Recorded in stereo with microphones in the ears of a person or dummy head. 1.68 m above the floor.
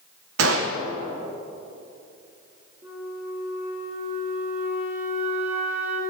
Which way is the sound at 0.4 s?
80° right.